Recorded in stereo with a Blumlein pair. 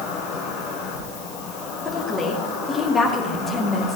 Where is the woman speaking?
15° left, 2.5 m.